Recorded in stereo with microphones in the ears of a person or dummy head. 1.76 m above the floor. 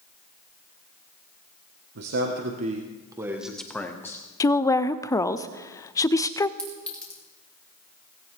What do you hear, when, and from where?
1.9 s a man speaking: 60° right (ahead or behind), 1.2 m; by 4.2 s 20° left (ahead or behind), 1.6 m
4.4 s a woman speaking: 20° left (ahead or behind), 0.5 m
6.6 s a clink: centre (ahead or behind), 3 m